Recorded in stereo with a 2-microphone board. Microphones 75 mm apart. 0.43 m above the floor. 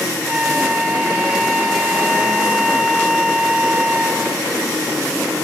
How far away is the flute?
About 1.7 m.